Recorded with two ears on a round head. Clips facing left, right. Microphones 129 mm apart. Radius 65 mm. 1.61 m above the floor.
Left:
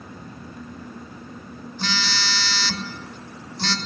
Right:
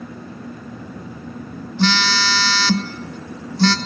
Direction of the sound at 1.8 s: 55° right (ahead or behind).